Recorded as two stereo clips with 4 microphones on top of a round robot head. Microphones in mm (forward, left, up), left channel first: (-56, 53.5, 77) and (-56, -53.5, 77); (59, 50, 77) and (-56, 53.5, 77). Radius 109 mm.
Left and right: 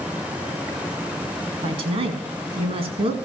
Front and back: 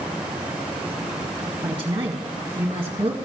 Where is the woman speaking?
120° right, 2.0 m.